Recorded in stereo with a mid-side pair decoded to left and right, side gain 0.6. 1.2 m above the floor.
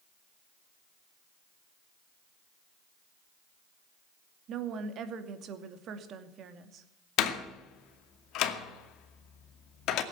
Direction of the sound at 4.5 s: 55° right.